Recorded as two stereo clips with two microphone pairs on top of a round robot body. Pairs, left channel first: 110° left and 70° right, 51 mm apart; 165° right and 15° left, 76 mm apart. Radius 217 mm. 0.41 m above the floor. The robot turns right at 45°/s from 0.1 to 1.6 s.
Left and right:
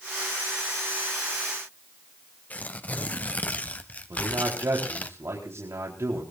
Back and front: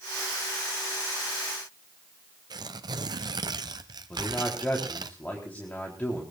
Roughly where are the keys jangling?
No keys jangling in this recording.